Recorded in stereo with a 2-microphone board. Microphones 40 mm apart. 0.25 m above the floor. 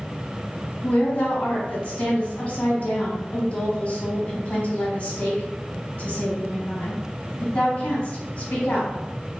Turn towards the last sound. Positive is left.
turn(degrees=45)  # may be behind; listen again after turning